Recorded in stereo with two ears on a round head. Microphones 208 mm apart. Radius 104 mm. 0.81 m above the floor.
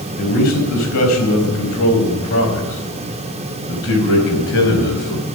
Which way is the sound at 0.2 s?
85° left.